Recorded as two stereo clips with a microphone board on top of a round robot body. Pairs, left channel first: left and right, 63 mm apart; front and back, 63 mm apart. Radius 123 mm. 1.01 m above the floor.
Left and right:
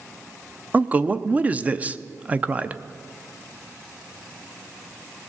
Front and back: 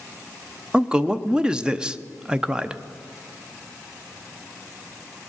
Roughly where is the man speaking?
Behind right.